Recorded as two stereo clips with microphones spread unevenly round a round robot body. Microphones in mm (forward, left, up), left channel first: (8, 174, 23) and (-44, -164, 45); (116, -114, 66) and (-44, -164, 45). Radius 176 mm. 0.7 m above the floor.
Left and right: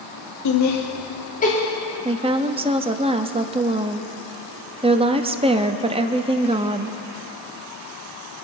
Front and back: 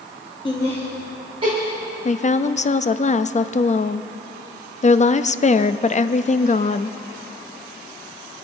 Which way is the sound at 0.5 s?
80° left.